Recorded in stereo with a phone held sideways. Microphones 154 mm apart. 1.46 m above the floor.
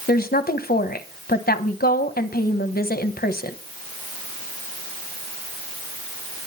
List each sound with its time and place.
0.1 s a woman speaking: 85° left, 1.2 m